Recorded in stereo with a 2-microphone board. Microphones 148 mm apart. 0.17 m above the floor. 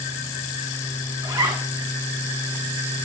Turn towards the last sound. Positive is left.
turn(degrees=-35)  # may be behind; listen again after turning